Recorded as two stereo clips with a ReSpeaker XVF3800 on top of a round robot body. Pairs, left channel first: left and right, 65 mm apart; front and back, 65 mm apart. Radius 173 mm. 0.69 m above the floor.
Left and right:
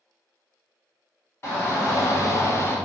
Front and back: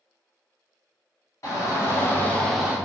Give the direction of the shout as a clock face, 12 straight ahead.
11 o'clock.